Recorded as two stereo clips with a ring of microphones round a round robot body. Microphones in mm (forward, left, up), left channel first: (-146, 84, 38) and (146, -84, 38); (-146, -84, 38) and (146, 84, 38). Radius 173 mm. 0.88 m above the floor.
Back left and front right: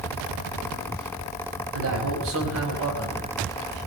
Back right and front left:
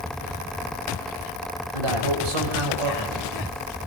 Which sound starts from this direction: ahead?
A man speaking, at 1.7 s.